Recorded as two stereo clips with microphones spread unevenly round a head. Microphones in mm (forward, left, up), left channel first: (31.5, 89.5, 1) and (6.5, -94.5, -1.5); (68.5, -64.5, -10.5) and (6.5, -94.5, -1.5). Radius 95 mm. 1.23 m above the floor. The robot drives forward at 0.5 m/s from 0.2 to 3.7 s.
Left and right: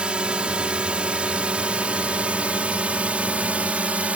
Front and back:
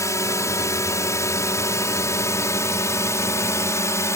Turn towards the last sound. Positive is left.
turn(degrees=-15)